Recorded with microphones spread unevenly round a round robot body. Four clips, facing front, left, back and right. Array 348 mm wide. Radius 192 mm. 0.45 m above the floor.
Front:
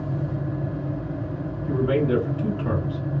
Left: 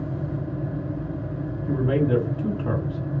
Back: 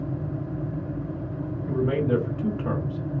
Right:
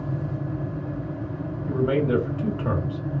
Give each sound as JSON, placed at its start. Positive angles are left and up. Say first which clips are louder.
{"t": 1.7, "sound": "a man speaking", "louder": "even, front 2 dB", "azimuth_deg": -85, "distance_m": 2.0}